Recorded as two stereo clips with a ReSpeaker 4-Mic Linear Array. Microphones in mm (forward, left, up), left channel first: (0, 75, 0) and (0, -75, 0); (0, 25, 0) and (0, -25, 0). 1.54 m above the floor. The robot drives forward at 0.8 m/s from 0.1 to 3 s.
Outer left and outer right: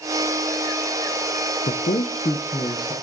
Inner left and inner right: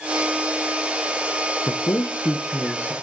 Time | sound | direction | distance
1.6 | a man speaking | 65° left (ahead or behind) | 0.7 m